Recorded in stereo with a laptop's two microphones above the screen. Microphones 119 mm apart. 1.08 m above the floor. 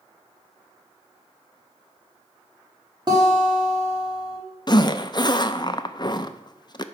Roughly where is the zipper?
Left.